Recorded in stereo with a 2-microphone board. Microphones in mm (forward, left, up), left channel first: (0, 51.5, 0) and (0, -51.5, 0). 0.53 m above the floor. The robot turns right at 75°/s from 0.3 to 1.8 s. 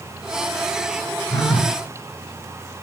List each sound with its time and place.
1.3 s a phone buzzing: 40° left, 1.2 m; by 1.8 s 75° left, 1.2 m